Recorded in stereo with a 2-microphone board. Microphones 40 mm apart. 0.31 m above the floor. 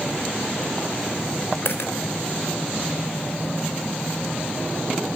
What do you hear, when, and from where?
1.6 s a dropped coin: 70° left (ahead or behind), 0.8 m